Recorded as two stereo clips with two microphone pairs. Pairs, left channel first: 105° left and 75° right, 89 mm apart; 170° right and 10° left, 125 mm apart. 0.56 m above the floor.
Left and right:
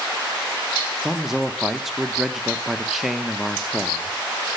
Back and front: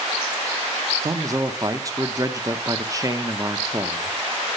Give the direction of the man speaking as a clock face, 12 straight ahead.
12 o'clock.